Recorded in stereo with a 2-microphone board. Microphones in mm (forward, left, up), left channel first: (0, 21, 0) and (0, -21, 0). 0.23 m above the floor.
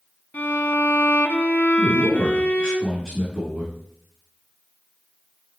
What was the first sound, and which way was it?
A violin, 55° left (ahead or behind).